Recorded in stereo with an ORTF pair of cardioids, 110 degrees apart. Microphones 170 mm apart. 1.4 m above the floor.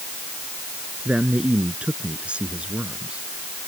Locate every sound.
1.1 s a man speaking: 5° right